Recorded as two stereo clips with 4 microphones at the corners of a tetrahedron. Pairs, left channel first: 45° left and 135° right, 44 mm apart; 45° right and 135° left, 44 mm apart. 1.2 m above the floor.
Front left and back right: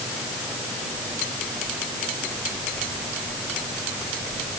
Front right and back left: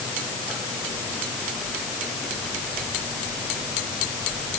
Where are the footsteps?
I don't hear footsteps.